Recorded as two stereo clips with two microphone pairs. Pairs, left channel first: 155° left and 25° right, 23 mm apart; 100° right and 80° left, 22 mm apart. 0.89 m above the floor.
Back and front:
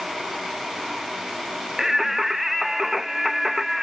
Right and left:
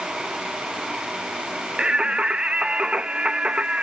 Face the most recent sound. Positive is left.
turn(degrees=55)